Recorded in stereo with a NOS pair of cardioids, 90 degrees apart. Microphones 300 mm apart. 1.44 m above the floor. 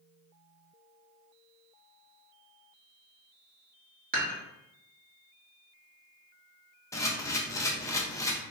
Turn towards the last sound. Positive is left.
turn(degrees=10)